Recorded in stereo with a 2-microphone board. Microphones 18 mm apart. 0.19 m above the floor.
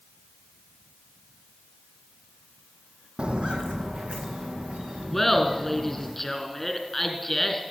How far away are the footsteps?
About 0.5 m.